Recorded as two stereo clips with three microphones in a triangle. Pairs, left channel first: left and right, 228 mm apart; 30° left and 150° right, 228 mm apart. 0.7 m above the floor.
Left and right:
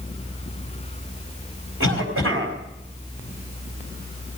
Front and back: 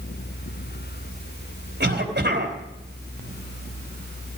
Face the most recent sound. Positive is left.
turn(degrees=-110)